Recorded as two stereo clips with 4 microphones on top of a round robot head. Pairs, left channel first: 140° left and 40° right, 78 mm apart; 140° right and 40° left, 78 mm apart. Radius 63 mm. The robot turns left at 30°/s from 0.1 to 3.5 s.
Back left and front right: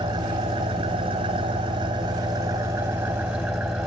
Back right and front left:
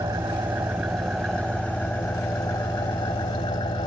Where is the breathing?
No breathing in this recording.